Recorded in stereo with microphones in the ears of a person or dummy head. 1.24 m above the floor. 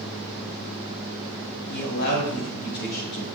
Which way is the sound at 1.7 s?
65° left (ahead or behind).